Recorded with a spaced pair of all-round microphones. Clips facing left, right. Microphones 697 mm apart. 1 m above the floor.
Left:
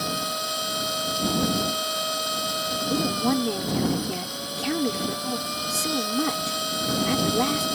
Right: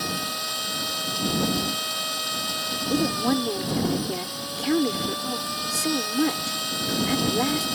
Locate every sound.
0.0 s a machine running: 25° right (ahead or behind)
2.9 s a woman speaking: 35° left (ahead or behind)